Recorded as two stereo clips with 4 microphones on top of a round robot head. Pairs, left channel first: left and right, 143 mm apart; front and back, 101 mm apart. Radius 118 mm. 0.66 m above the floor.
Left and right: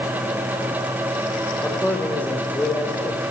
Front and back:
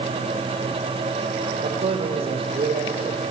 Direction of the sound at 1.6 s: 170° left.